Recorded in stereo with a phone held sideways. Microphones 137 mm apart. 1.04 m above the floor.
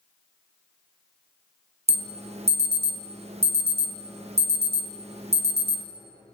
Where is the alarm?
50° right (ahead or behind), 0.5 m.